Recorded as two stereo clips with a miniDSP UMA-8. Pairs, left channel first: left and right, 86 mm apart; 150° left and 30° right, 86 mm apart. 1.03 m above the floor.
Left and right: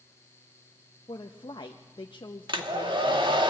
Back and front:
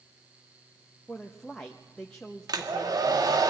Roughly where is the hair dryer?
Right.